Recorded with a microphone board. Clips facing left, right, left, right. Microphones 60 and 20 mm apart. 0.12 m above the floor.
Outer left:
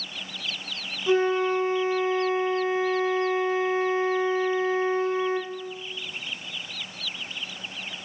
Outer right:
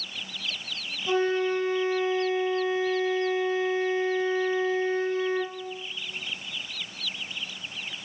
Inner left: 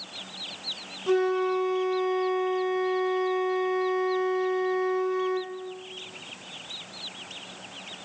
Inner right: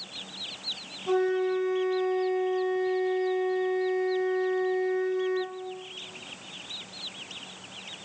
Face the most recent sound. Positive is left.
turn(degrees=25)  # may be behind; listen again after turning